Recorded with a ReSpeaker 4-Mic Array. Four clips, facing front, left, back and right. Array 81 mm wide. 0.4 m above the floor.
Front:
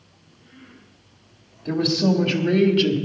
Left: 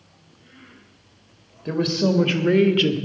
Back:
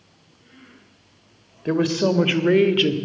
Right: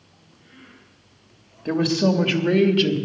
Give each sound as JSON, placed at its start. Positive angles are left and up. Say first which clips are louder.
{"t": 1.6, "sound": "a woman speaking", "louder": "right 1 dB, back 1 dB", "azimuth_deg": -170, "distance_m": 1.3}